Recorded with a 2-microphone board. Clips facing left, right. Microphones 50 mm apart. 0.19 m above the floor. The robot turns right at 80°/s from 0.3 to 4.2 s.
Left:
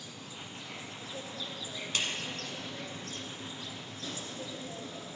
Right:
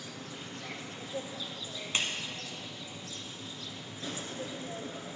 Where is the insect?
100° right, 1.0 m; by 5.2 s 145° right, 1.0 m.